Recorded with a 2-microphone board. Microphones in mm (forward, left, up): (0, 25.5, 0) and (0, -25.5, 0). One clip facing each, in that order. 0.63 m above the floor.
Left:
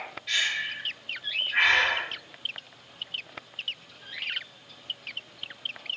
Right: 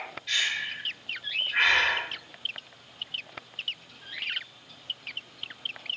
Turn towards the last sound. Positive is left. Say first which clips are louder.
# left 1 dB
turn(degrees=5)  # may be behind; listen again after turning